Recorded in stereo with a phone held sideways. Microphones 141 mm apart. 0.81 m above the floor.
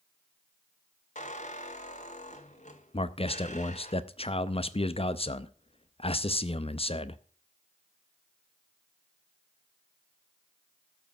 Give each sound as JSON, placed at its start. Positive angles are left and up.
{"t": 1.1, "sound": "a squeak", "side_deg": 60, "distance_m": 1.9}
{"t": 2.9, "sound": "a man speaking", "side_deg": 40, "distance_m": 0.6}